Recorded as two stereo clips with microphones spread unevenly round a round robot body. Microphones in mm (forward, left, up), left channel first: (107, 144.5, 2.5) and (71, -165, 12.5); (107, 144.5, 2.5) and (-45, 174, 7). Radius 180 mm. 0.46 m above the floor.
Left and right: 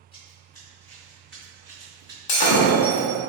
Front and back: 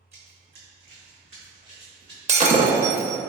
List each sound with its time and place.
0.1 s running footsteps: 160° left, 1.5 m; by 2.2 s 140° right, 1.9 m
2.3 s breaking glass: 115° left, 0.8 m